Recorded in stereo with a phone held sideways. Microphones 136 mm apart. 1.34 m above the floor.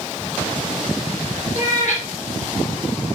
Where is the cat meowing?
60° left (ahead or behind), 3 m.